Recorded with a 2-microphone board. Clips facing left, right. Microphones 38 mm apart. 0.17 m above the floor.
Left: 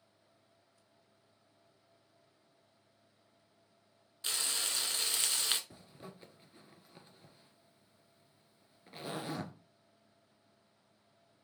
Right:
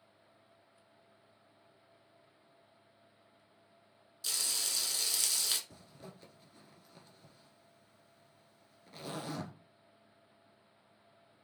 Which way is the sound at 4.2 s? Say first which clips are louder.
Left 1 dB; 35° left (ahead or behind).